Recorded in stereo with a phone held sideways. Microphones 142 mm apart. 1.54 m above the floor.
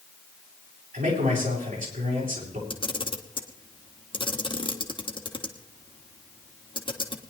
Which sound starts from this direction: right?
A man speaking, at 0.9 s.